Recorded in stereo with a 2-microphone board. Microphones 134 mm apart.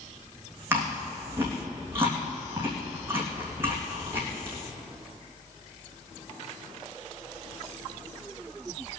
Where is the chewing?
15° right (ahead or behind), 3 m.